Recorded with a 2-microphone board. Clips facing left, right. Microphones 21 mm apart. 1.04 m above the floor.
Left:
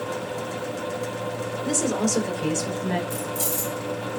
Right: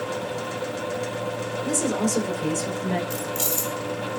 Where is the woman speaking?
20° left (ahead or behind), 3.5 m; by 3.0 s 25° left (ahead or behind), 4.5 m.